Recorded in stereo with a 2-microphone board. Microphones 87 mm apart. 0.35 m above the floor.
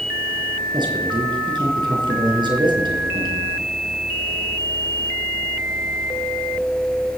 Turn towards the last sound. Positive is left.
turn(degrees=-65)  # may be behind; listen again after turning